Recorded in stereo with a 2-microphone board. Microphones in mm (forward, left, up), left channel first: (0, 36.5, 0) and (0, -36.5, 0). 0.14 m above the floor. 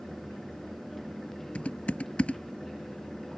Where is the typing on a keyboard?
20° left (ahead or behind).